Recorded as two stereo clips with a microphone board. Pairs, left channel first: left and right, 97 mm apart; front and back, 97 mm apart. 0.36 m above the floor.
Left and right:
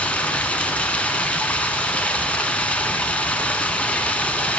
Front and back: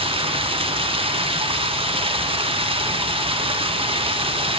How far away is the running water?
About 1.1 m.